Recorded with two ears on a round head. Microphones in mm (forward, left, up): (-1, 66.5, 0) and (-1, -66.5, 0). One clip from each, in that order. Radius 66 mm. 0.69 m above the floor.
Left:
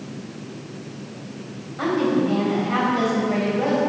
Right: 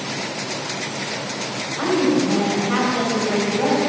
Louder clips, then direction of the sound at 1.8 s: Right 2 dB; 20° right (ahead or behind).